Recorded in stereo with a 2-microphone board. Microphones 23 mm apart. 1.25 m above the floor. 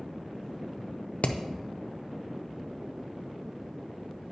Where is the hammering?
70° left (ahead or behind), 0.5 m.